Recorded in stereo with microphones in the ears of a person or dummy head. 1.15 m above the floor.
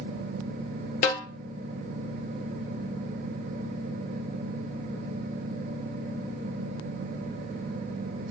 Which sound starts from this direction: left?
A snare drum, at 1.0 s.